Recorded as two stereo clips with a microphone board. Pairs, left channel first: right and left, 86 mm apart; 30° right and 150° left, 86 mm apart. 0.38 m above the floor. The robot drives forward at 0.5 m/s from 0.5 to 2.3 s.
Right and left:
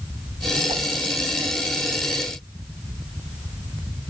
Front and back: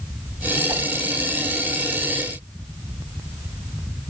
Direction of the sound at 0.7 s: 100° left.